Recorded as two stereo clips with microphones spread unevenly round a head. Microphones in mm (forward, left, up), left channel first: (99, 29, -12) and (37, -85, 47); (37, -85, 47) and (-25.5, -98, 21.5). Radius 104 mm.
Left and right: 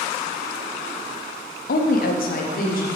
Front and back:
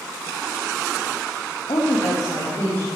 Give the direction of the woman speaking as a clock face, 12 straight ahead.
10 o'clock.